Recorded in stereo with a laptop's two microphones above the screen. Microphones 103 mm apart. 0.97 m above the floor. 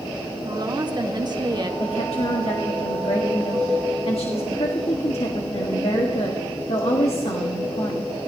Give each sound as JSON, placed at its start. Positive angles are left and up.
{"t": 0.5, "sound": "a woman speaking", "side_deg": -45, "distance_m": 1.1}
{"t": 1.8, "sound": "a woman speaking", "side_deg": 75, "distance_m": 1.4}